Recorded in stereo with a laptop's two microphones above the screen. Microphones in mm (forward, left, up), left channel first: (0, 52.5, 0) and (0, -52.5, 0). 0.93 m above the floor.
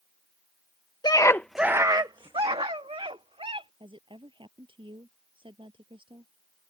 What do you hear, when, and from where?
1.0 s a scream: 45° left (ahead or behind); by 3.7 s 80° right
3.8 s a woman speaking: 60° right (ahead or behind)